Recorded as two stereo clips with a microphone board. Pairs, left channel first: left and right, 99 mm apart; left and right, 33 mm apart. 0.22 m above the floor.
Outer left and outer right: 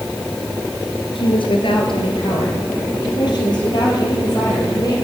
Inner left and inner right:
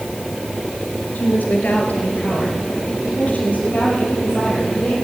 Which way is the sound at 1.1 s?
60° left (ahead or behind).